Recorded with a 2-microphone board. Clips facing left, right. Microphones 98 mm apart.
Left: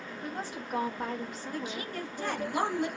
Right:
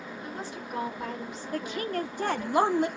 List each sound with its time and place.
0.2 s a woman speaking: 40° left (ahead or behind), 1.6 m
1.5 s a woman speaking: 60° right (ahead or behind), 0.7 m